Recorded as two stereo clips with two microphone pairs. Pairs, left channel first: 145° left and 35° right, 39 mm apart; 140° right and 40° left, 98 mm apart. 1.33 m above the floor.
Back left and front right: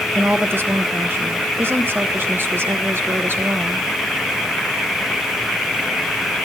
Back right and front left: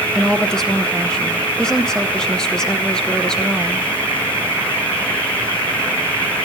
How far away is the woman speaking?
About 0.9 m.